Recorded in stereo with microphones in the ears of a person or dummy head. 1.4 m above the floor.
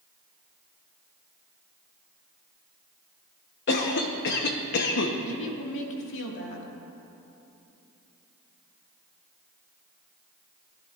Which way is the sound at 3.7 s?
60° left (ahead or behind).